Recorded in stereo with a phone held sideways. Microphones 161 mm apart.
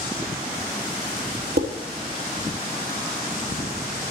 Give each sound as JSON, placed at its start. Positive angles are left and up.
{"t": 1.6, "sound": "dishes clattering", "side_deg": -70, "distance_m": 1.2}